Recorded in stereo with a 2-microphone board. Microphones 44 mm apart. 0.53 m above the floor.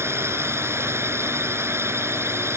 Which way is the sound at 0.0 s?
80° right.